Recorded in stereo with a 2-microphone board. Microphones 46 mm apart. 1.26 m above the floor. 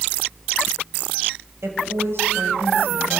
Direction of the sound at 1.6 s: 65° right (ahead or behind).